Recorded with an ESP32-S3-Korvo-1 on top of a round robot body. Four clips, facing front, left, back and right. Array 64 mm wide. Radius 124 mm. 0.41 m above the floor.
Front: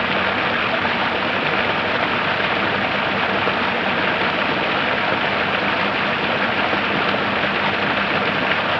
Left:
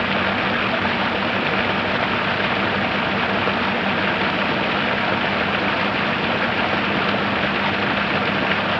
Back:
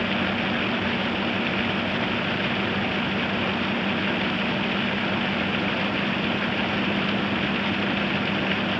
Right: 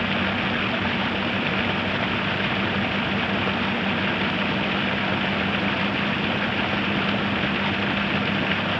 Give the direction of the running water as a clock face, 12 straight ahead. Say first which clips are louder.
Left 4 dB, front 6 dB; 11 o'clock.